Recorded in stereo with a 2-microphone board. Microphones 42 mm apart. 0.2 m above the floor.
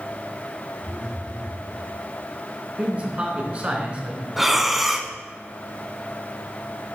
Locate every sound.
0.8 s a phone buzzing: 70° right (ahead or behind), 4 m
2.8 s a man speaking: 30° right (ahead or behind), 1.8 m
4.4 s breathing: 5° right (ahead or behind), 0.6 m